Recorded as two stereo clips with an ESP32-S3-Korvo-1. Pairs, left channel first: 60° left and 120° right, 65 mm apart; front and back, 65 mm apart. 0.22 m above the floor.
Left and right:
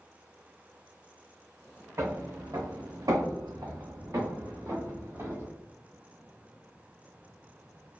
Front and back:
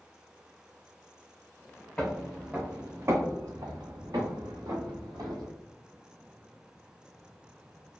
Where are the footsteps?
80° right, 0.7 m; by 5.5 s 170° right, 1.7 m.